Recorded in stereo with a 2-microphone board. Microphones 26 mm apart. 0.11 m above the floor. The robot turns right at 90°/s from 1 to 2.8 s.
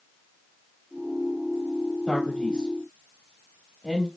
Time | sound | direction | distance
2.1 | a man speaking | 20° left (ahead or behind) | 1.2 m